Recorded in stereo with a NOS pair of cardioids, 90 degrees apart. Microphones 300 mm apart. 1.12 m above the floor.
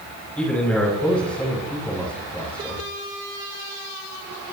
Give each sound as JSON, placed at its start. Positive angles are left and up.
{"t": 0.4, "sound": "a man speaking", "azimuth_deg": 5, "distance_m": 6.5}